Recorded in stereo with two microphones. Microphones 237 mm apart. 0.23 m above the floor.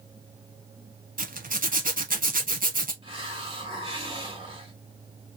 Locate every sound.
1.2 s a zipper: 35° right (ahead or behind), 0.8 m
3.0 s a hiss: 20° right (ahead or behind), 2 m